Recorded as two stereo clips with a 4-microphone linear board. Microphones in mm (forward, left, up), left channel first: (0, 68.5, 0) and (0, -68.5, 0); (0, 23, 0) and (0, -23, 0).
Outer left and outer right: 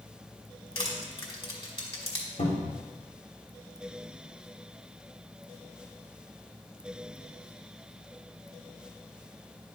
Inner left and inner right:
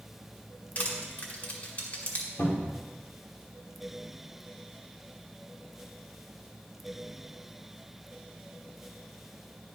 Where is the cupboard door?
75° left (ahead or behind), 3 m.